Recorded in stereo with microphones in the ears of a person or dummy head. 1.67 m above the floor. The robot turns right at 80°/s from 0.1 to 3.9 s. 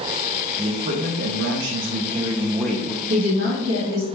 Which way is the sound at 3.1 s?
85° right.